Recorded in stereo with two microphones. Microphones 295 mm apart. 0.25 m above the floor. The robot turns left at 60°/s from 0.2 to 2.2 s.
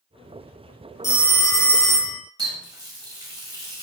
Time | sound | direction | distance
1.0 | a phone ringing | 50° left | 0.6 m
2.4 | a running tap | 15° right (ahead or behind) | 0.6 m